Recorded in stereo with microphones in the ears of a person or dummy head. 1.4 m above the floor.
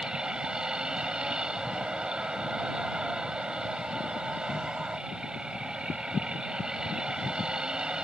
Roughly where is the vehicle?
Centre.